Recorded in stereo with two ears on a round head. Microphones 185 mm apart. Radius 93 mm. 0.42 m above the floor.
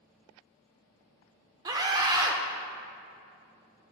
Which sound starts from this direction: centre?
A scream, at 1.6 s.